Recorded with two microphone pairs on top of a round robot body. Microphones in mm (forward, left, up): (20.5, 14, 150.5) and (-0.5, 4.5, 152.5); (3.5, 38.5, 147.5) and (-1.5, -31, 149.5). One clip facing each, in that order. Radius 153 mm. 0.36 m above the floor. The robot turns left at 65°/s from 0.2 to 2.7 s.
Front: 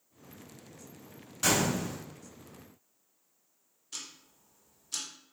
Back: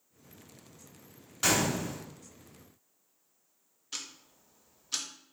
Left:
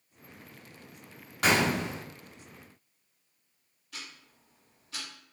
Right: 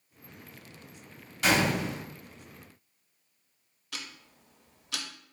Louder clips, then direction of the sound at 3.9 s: Back 2 dB, right 3 dB; 90° right.